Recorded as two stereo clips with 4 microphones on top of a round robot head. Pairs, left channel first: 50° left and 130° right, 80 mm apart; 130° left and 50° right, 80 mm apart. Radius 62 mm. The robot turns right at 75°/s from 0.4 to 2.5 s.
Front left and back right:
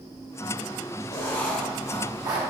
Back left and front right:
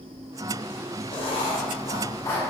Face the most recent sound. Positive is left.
turn(degrees=-155)